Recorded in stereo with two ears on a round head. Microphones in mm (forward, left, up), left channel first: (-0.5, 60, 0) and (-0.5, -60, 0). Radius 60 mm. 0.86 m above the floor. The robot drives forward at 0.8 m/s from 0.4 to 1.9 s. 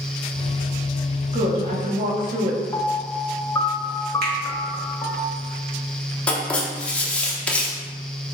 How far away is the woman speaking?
About 1.3 m.